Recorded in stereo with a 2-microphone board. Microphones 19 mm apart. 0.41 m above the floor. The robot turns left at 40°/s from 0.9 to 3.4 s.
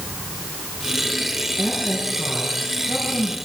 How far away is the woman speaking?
About 6.5 m.